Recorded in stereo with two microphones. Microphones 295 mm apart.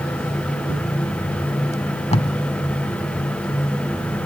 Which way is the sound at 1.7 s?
20° left (ahead or behind).